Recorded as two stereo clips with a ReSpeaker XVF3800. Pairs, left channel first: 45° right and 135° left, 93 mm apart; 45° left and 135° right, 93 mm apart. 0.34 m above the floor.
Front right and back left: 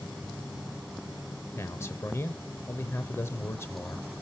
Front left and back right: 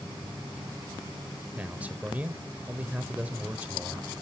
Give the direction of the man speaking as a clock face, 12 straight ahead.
2 o'clock.